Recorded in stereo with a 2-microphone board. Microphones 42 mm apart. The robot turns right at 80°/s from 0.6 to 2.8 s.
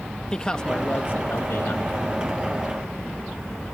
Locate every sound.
0.3 s a man speaking: 20° left; by 1.9 s 120° left